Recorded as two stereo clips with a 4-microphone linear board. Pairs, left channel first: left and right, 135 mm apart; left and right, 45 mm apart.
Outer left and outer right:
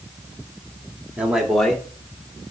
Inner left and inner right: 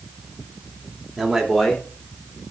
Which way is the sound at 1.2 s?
10° right (ahead or behind).